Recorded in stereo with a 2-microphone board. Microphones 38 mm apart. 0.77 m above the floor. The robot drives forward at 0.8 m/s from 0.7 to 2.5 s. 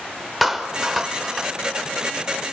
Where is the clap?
5° right (ahead or behind), 1.8 m; by 1.9 s centre (ahead or behind), 2.5 m.